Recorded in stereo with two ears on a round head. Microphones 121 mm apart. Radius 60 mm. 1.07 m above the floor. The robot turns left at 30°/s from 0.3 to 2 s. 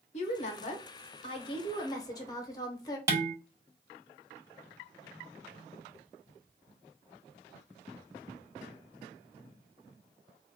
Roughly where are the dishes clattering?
Right.